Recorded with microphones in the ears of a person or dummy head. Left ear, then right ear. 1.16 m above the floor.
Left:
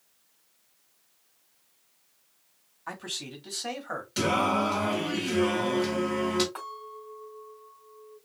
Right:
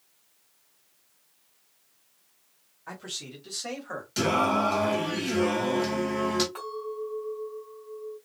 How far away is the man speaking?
About 2 m.